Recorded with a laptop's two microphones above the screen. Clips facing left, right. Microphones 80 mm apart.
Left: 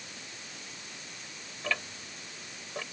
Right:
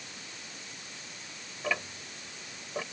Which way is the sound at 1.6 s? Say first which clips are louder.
Right 2 dB; 15° right (ahead or behind).